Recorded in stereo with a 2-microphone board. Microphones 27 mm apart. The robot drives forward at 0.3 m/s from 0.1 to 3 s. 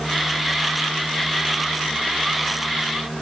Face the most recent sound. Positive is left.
No sound to turn to.